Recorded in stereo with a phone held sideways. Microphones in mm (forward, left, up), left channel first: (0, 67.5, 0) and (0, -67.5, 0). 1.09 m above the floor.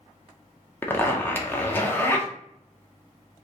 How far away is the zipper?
About 0.6 m.